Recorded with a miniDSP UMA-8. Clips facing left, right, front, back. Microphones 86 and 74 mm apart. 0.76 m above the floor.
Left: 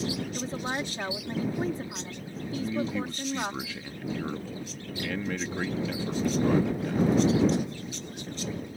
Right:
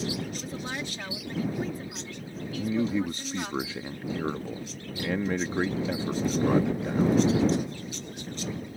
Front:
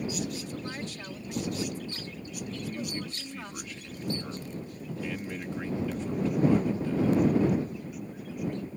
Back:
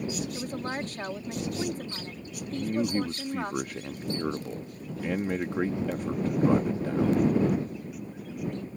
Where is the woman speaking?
145° left.